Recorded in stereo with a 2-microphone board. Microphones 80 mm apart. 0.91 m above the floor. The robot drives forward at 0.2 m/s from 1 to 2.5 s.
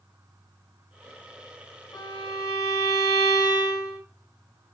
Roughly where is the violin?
Left.